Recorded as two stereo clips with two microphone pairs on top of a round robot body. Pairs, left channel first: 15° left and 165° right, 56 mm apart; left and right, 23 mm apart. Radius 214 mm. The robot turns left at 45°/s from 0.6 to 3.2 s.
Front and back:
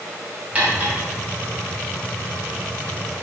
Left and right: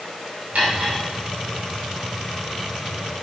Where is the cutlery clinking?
100° right, 3.5 m; by 1.0 s 115° right, 3.5 m.